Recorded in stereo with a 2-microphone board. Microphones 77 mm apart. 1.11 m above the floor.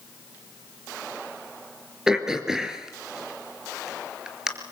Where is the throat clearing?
10° right (ahead or behind), 3.5 m.